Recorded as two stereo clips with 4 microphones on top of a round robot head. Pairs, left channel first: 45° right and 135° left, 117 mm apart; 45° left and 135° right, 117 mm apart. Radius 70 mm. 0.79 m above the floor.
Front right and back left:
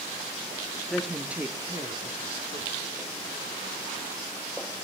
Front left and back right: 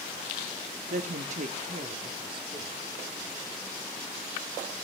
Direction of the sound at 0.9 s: 130° right.